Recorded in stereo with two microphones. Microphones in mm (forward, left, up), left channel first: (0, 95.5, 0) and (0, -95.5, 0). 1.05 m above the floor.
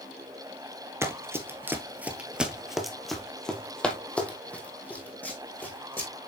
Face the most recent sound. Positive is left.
turn(degrees=10)  # may be behind; listen again after turning